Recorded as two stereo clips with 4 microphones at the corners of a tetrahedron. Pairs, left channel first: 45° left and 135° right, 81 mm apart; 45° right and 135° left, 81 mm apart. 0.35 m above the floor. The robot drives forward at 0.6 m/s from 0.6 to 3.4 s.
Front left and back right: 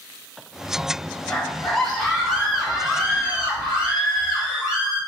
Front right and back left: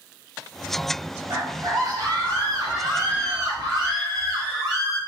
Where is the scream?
120° left, 1.9 m; by 5.0 s 145° left, 2.5 m.